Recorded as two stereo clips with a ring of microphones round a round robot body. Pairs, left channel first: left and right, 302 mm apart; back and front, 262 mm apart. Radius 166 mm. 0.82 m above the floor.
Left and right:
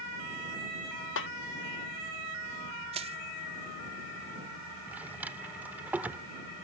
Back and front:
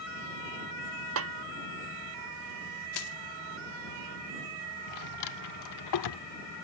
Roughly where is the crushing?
Behind.